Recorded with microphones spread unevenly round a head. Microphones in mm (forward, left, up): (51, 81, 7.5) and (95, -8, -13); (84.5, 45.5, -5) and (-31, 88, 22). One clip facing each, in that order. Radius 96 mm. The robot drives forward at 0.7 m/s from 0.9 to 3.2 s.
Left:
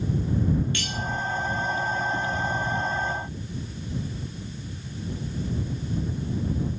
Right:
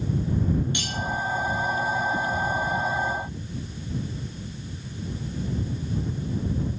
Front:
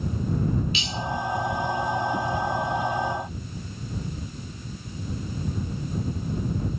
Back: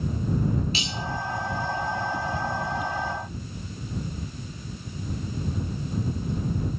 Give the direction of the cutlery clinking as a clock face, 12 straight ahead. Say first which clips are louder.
Even, back 1 dB; 5 o'clock.